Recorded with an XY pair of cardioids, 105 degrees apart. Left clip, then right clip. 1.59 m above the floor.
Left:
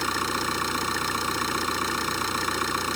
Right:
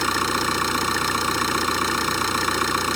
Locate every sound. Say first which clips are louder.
0.0 s an engine running: right 5 dB; 30° right